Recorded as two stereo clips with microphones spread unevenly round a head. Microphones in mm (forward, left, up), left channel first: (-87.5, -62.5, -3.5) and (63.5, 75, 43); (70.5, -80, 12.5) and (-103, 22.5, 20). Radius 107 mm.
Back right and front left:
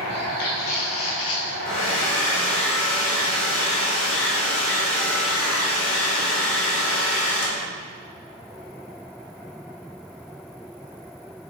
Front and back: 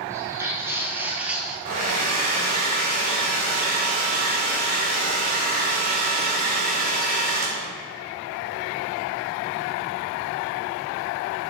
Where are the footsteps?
140° right, 1.7 m; by 1.6 s 130° right, 1.1 m.